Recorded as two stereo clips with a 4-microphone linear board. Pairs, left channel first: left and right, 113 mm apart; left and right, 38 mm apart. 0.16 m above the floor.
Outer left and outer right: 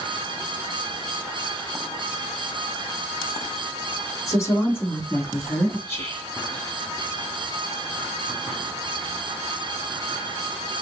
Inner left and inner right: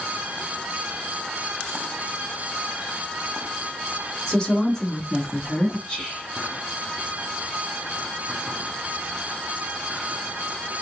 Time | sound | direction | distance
4.3 | a woman speaking | 25° left (ahead or behind) | 1.2 m
5.9 | whispering | 20° left (ahead or behind) | 1.3 m